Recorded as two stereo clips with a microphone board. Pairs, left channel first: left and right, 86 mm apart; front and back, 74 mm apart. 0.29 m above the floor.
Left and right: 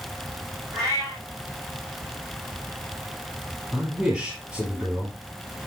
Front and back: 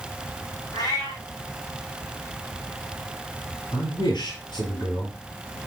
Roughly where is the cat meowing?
Ahead right.